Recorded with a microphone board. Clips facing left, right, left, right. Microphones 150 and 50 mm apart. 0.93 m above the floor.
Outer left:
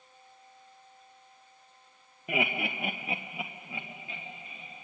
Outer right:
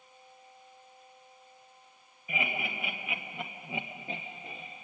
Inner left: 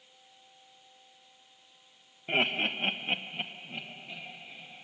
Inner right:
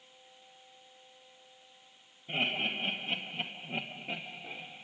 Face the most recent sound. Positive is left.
turn(degrees=-50)  # may be behind; listen again after turning